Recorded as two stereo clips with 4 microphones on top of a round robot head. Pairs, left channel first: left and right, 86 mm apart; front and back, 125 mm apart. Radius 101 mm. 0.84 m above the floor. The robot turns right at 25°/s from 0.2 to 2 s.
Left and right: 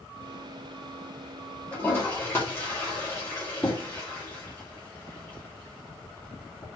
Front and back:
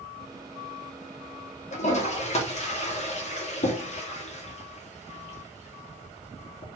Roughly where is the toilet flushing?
Ahead.